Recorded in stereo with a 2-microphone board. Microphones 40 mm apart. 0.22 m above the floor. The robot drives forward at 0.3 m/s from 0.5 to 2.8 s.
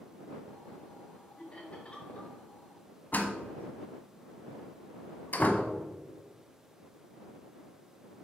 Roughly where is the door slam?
Left.